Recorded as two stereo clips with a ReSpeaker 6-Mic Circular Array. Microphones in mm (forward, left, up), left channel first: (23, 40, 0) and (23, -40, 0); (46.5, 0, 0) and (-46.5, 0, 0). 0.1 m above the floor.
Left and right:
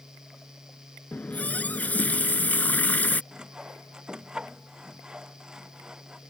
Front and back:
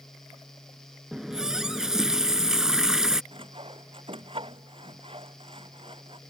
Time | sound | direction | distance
1.1 | a running tap | 105° left | ?
3.3 | sawing | 170° right | ?